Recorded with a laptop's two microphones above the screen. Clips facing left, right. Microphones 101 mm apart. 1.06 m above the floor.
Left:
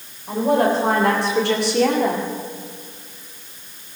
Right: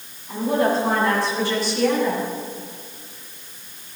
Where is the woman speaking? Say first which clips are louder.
Left 3 dB; 70° left (ahead or behind), 4 m; by 2.3 s 75° left (ahead or behind), 1.9 m.